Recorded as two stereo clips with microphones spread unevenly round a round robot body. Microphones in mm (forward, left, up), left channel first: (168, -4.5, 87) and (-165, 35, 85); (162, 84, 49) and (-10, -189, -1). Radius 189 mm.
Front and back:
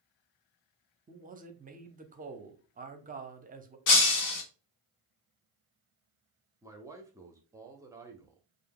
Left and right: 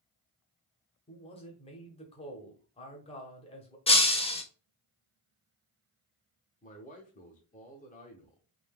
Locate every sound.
1.1 s a man speaking: 130° left, 0.8 m
3.9 s breaking glass: 20° right, 1.0 m
6.6 s a man speaking: 110° left, 0.8 m